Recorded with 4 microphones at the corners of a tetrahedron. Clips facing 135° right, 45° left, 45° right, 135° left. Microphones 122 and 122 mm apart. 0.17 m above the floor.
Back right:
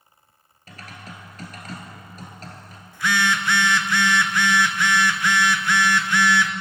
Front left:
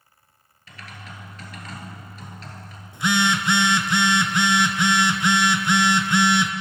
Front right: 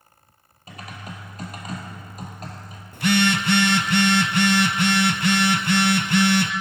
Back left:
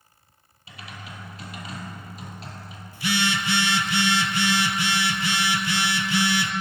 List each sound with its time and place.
0.7 s typing on a keyboard: 90° right, 1.5 m
2.9 s a phone buzzing: 20° right, 0.5 m